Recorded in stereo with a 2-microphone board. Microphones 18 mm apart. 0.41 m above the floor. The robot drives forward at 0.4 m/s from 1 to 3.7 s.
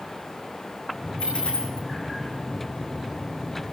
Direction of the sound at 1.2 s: 80° left.